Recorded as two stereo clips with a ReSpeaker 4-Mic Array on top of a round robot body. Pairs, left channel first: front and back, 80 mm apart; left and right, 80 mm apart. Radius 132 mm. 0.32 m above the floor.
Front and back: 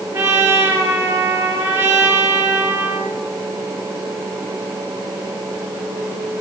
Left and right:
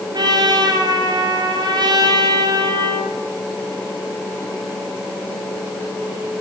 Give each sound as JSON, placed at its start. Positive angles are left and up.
{"t": 0.1, "sound": "a trumpet", "azimuth_deg": -125, "distance_m": 4.0}